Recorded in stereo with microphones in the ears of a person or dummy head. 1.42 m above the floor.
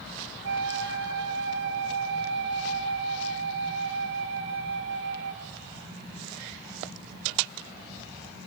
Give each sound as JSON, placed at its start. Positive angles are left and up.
{"t": 0.4, "sound": "a flute", "side_deg": -80, "distance_m": 3.5}